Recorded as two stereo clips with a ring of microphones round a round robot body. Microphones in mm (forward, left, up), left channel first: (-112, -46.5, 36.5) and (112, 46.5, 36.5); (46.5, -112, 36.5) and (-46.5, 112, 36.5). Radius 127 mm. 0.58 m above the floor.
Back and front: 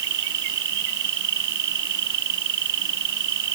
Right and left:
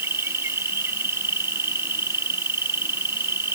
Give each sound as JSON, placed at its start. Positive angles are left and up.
{"t": 0.0, "sound": "an insect", "azimuth_deg": 30}